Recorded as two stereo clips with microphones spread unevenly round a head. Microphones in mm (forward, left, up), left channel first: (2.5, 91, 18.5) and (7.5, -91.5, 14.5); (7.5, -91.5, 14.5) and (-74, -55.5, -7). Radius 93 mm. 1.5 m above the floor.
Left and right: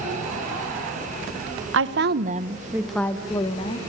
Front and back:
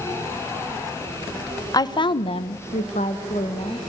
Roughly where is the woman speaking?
Right.